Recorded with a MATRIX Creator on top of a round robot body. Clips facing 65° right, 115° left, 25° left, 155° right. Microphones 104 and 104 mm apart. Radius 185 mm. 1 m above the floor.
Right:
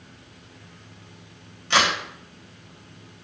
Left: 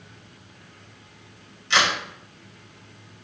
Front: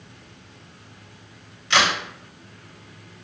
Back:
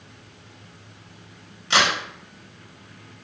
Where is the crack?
105° right, 1.4 m.